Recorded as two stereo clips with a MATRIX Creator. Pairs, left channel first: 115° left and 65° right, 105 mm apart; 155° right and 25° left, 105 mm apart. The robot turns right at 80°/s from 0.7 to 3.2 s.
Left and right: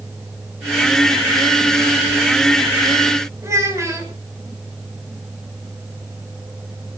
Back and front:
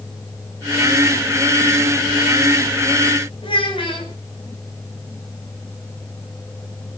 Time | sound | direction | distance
3.4 | a child speaking | 125° right | 6 m